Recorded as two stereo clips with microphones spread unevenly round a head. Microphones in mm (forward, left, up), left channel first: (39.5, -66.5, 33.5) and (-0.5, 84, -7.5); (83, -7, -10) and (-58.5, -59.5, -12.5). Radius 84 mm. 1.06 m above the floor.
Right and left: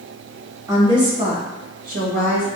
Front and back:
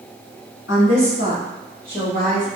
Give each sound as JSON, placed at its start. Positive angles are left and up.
{"t": 0.7, "sound": "a woman speaking", "azimuth_deg": 40, "distance_m": 1.4}